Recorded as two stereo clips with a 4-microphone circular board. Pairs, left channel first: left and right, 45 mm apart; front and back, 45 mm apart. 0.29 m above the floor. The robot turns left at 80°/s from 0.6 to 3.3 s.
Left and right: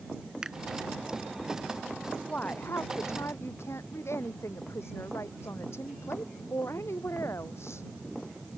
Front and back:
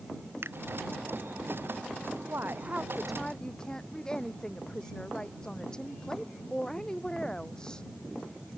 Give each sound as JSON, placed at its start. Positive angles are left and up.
{"t": 0.4, "sound": "a finger snap", "azimuth_deg": -165}
{"t": 2.3, "sound": "a woman speaking", "azimuth_deg": 155}